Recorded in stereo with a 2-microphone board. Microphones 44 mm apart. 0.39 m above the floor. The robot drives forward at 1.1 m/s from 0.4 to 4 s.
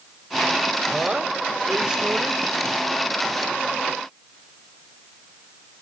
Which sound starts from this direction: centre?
A woman speaking, at 0.9 s.